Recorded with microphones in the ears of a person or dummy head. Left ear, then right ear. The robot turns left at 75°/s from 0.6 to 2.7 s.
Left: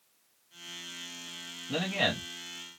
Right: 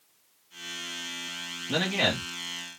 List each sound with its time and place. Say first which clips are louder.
1.7 s a man speaking: right 3 dB; 165° right, 0.8 m; by 2.8 s 120° left, 0.8 m